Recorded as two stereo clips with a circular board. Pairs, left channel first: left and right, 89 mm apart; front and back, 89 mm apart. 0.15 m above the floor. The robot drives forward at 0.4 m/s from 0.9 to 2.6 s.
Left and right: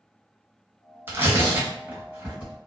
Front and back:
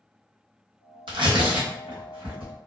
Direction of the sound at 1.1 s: 155° right.